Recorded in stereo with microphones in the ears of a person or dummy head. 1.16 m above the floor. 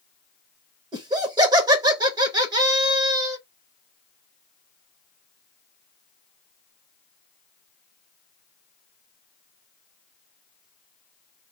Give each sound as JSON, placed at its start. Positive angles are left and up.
{"t": 0.9, "sound": "laughter", "side_deg": -25, "distance_m": 1.0}